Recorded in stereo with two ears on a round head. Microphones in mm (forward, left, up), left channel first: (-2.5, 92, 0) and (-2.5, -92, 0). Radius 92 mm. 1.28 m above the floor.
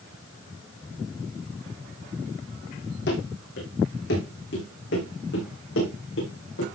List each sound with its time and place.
3.1 s running footsteps: 60° left (ahead or behind), 4.5 m; by 6.7 s 70° left (ahead or behind), 6.5 m